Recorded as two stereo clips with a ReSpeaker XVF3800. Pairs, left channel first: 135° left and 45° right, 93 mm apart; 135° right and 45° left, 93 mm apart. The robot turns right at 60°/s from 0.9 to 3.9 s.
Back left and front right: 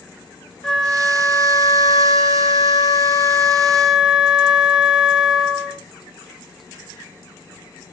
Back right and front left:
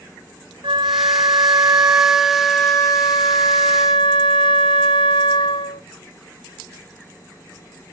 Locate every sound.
0.6 s a flute: 55° left, 1.3 m; by 5.8 s 125° right, 1.3 m